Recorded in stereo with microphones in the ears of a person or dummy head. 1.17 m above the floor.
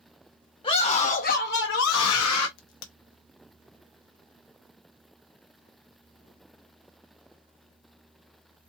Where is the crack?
75° left (ahead or behind), 1.1 m.